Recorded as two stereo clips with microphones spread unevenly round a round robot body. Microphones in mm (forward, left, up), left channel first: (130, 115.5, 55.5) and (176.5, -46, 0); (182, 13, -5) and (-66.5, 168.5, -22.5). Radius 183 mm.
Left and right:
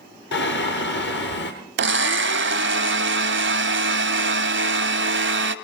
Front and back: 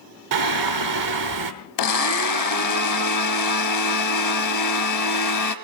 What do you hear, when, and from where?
0.3 s singing: 155° left, 1.0 m
1.8 s a blender: 65° right, 0.8 m